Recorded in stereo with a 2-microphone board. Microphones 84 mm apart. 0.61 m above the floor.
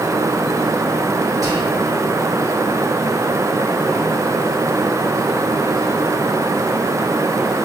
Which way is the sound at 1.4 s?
45° right (ahead or behind).